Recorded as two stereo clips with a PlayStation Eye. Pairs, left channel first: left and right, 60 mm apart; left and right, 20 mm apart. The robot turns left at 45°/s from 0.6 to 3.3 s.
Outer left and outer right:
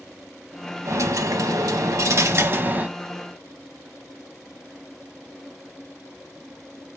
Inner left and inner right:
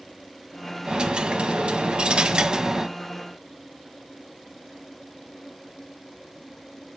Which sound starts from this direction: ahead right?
A dropped coin, at 0.8 s.